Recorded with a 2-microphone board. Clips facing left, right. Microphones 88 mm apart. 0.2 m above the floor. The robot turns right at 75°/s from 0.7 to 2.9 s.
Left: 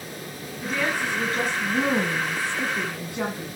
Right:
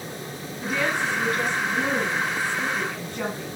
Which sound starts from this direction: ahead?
A woman speaking, at 0.6 s.